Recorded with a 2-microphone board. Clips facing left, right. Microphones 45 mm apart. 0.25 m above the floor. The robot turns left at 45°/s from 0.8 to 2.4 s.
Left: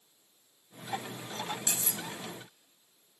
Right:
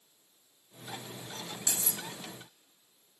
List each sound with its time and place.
1.7 s cutlery clinking: 35° left (ahead or behind), 0.7 m; by 2.0 s 40° left (ahead or behind), 0.7 m